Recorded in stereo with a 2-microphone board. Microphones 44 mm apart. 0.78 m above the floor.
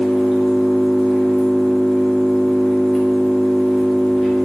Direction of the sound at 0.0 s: Centre (ahead or behind).